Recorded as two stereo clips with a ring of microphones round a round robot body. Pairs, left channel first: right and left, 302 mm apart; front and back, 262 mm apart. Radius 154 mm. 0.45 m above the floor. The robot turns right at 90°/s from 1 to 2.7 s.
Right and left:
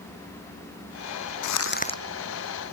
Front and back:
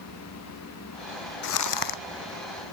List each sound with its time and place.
1.4 s crumpling: 60° right; by 2.0 s 5° right